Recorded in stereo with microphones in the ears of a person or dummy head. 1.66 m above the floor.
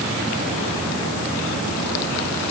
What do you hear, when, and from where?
Only background noise.